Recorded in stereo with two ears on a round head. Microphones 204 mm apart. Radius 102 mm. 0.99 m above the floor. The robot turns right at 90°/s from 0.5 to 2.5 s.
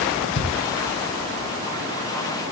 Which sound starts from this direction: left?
A thud, at 0.3 s.